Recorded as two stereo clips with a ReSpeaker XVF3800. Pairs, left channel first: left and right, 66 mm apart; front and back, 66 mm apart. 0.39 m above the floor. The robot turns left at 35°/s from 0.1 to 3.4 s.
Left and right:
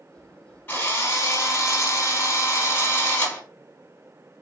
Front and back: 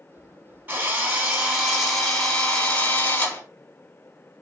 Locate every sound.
0.7 s a drill: 130° left, 1.4 m; by 3.4 s 35° left, 1.4 m